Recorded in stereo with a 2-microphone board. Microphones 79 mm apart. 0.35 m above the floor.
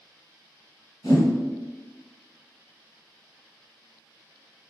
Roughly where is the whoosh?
Left.